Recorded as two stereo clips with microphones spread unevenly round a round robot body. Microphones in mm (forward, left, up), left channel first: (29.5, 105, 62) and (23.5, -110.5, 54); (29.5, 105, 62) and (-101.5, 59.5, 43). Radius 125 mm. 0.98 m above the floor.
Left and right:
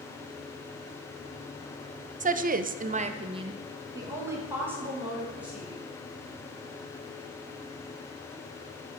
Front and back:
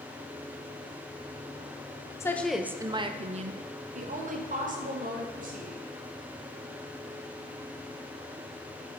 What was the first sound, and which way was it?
A woman speaking, 55° right.